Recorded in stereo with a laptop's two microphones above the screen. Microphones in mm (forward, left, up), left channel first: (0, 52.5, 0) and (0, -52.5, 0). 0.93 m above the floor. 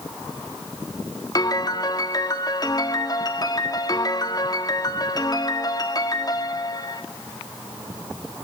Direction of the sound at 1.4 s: 40° left (ahead or behind).